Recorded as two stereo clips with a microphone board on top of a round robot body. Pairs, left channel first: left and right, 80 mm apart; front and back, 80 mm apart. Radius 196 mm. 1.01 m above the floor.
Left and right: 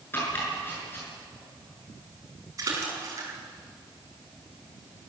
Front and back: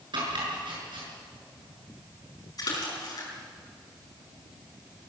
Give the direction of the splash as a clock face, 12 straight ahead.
1 o'clock.